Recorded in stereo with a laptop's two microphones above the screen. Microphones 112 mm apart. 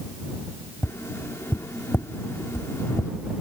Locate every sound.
0.8 s tapping: 25° left (ahead or behind)